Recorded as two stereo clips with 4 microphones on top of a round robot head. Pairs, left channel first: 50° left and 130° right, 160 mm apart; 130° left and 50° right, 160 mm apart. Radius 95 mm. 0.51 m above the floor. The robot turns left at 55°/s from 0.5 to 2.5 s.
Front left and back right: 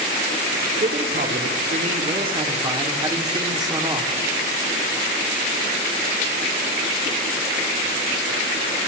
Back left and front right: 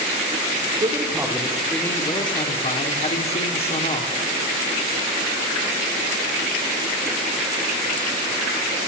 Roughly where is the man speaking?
Right.